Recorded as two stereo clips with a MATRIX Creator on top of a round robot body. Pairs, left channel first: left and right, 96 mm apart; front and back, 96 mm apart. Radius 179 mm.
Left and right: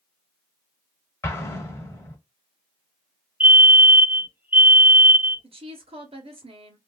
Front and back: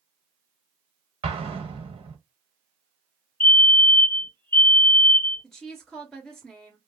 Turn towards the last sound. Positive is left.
turn(degrees=-90)